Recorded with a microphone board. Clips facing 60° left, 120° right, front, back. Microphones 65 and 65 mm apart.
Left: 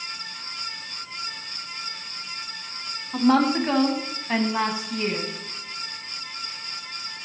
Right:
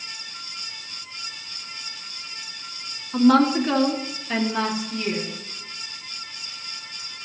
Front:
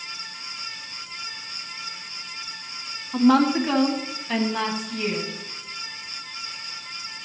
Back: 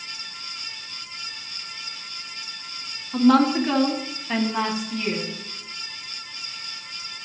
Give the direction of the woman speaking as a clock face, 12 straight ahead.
10 o'clock.